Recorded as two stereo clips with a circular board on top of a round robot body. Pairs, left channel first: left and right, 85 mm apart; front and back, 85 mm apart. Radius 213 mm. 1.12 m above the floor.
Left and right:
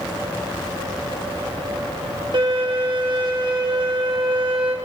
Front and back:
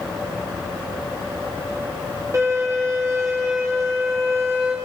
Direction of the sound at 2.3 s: 120° right.